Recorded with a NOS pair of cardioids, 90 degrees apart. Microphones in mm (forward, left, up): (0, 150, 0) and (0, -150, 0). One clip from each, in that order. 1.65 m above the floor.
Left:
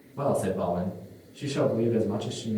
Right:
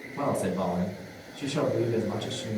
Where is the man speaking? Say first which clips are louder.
Left 2 dB; 15° right, 1.6 m.